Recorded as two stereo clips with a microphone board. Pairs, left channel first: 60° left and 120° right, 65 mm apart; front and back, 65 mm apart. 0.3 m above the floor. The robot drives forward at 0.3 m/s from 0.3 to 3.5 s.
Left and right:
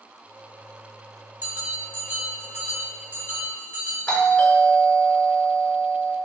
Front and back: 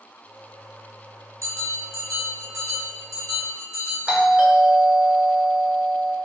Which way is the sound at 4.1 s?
120° left.